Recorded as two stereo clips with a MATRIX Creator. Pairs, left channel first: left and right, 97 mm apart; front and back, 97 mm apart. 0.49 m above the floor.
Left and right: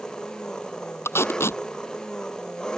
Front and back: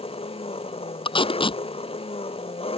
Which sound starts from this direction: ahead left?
Tape being pulled, at 1.1 s.